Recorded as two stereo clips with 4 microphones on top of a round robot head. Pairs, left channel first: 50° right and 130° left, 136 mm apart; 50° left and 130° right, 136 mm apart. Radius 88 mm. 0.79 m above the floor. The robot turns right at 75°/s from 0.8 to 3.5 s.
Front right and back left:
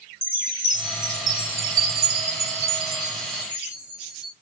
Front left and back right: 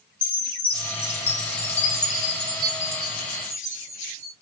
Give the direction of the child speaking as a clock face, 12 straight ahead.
No child speaking in this recording.